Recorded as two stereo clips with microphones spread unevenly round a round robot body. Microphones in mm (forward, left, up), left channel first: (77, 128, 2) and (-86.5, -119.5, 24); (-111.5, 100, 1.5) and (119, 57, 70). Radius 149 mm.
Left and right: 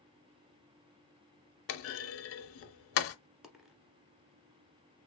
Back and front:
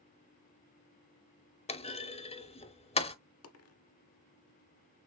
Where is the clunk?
100° left, 0.8 m.